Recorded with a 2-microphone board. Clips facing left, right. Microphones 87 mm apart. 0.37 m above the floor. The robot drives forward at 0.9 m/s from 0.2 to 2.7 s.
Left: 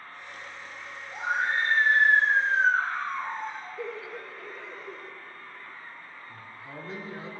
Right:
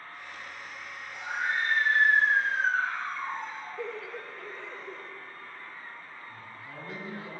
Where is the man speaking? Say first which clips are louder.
Left 1 dB; 25° left (ahead or behind), 5 m.